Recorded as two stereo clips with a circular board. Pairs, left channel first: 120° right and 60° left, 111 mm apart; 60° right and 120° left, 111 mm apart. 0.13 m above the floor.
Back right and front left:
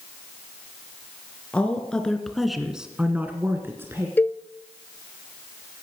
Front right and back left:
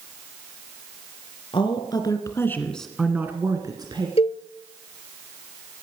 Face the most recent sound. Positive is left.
turn(degrees=-50)